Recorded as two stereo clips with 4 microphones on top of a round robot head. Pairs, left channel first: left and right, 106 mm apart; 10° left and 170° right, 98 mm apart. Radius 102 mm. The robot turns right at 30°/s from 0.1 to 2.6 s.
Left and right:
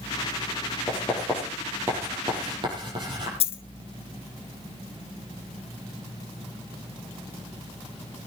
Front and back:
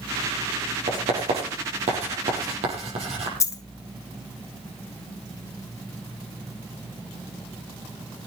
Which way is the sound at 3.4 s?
65° left.